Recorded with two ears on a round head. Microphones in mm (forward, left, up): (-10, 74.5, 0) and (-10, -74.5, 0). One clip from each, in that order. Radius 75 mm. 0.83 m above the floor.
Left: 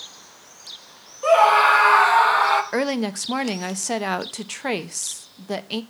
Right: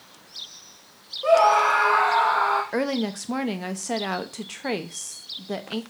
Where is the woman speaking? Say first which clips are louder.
Left 2 dB; 20° left (ahead or behind), 0.6 m.